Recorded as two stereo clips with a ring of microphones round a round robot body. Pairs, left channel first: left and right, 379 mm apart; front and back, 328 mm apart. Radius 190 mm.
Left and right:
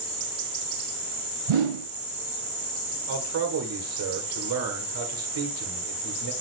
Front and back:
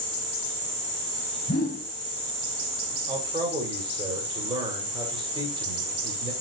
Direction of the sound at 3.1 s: 110° right.